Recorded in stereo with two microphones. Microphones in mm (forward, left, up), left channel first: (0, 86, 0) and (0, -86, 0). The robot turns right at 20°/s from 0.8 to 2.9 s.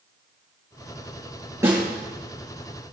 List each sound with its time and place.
1.6 s a snare drum: 15° right (ahead or behind), 6 m; by 1.8 s 10° right (ahead or behind), 6 m